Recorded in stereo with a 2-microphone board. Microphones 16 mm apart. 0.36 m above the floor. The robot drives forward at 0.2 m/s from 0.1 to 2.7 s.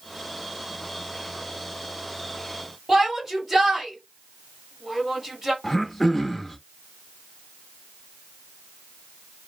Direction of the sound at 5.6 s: 15° left (ahead or behind).